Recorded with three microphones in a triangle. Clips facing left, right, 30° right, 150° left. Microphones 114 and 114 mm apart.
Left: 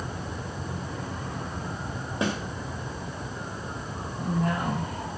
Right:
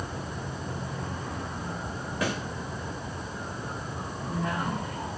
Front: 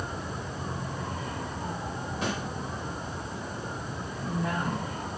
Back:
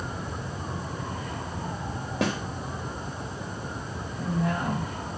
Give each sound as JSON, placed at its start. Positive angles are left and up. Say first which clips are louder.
{"t": 2.2, "sound": "a snare drum", "louder": "left 2 dB, back 5 dB", "azimuth_deg": 155, "distance_m": 2.5}
{"t": 4.2, "sound": "a woman speaking", "louder": "left 4 dB, back 3 dB", "azimuth_deg": 130, "distance_m": 8.0}